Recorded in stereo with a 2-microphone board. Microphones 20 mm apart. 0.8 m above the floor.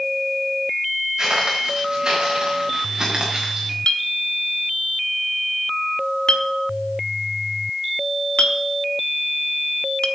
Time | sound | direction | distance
1.2 | footsteps | 40° right (ahead or behind) | 6 m
3.9 | a clink | 80° left | 1.1 m